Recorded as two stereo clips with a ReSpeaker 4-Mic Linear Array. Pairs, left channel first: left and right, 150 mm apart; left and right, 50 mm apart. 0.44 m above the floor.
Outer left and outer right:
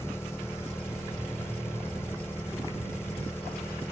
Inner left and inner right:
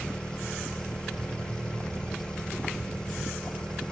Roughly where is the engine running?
Centre.